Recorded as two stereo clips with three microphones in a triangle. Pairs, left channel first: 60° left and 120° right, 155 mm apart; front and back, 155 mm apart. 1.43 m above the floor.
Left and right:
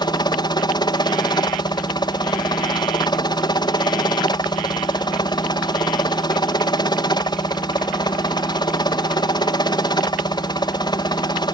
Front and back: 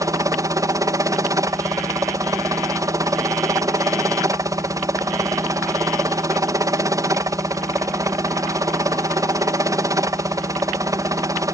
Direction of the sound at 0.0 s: 115° left.